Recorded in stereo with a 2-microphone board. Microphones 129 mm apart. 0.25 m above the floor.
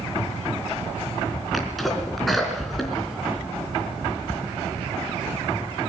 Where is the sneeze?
Centre (ahead or behind), 3.5 m.